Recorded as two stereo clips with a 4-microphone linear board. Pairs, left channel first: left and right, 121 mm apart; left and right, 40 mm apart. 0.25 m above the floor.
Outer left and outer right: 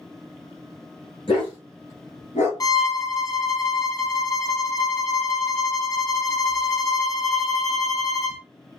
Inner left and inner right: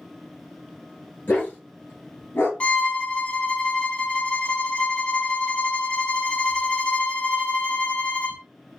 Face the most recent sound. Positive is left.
turn(degrees=30)  # may be behind; listen again after turning